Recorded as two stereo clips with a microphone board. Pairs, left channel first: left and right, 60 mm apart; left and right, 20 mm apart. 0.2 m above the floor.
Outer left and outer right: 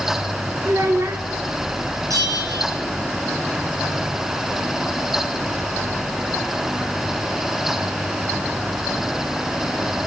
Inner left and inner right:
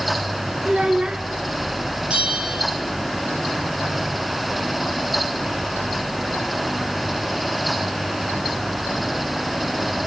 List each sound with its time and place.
0.7 s a child speaking: 60° right (ahead or behind), 1.8 m
2.1 s a bell: 70° right (ahead or behind), 5 m